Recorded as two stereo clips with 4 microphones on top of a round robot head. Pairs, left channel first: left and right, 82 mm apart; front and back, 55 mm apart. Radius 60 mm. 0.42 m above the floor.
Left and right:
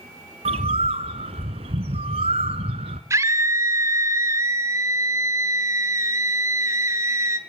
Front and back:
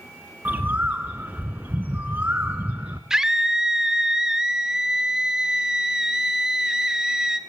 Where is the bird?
105° right, 1.3 m.